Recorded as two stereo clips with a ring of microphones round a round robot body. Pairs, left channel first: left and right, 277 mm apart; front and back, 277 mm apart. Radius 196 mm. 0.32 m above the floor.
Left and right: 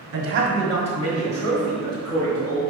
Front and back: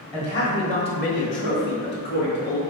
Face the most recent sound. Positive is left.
turn(degrees=50)